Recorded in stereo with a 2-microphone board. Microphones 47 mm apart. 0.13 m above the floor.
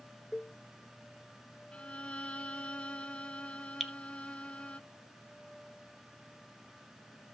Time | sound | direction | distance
0.3 | a cowbell | centre (ahead or behind) | 1.8 m
1.7 | a violin | 25° left (ahead or behind) | 0.9 m
3.8 | dripping | 5° right (ahead or behind) | 0.7 m